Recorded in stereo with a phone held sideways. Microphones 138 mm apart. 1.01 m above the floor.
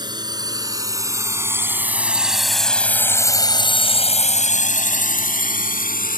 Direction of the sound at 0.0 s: 30° right (ahead or behind).